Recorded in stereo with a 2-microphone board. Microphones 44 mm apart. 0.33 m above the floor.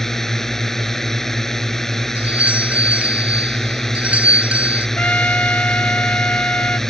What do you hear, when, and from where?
0.0 s a drone: 10° left (ahead or behind)
2.1 s a doorbell: 30° right (ahead or behind)
5.0 s a trumpet: 40° left (ahead or behind)